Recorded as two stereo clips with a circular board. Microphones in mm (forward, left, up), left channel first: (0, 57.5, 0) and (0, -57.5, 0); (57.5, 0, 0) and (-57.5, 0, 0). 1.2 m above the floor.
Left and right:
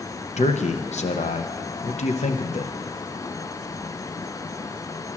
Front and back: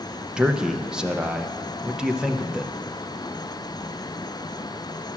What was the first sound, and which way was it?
A man speaking, 95° left.